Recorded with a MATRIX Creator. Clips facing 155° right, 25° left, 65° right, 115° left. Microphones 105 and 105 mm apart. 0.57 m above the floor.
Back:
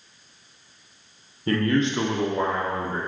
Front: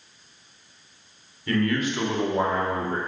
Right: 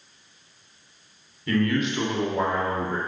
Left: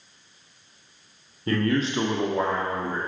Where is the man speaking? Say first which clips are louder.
Back 2 dB, even; 160° left, 1.3 m; by 3.0 s 5° right, 1.3 m.